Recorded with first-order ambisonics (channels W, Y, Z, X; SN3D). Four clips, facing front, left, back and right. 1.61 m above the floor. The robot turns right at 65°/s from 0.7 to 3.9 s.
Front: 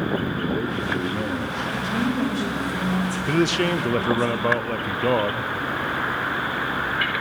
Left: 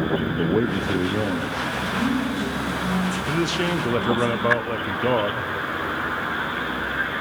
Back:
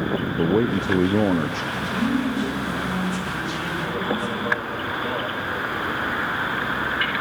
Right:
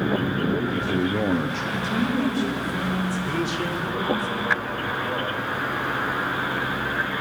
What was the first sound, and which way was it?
A man speaking, 155° left.